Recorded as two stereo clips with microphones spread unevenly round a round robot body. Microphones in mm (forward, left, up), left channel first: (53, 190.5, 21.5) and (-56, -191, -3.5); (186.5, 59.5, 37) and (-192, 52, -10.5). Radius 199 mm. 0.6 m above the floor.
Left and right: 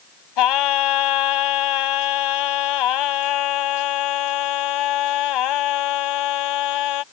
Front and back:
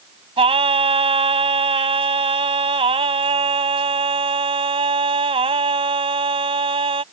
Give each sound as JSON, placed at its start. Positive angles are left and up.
{"t": 0.4, "sound": "singing", "azimuth_deg": 105}